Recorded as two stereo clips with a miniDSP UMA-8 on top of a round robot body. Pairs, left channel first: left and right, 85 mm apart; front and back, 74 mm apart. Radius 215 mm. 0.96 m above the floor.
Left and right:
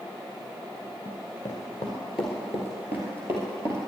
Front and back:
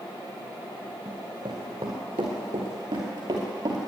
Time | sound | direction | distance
1.1 | running footsteps | 135° left | 1.0 m